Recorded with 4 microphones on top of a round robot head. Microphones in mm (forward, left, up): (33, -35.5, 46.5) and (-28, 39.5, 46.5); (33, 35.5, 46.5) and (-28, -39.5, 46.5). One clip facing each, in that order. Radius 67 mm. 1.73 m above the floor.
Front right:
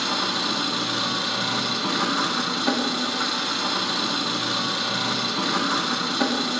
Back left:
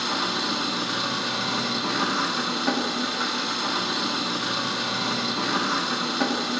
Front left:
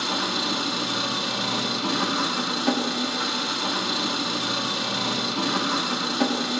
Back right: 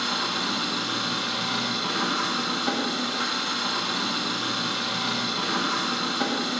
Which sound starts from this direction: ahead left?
An engine running, at 0.0 s.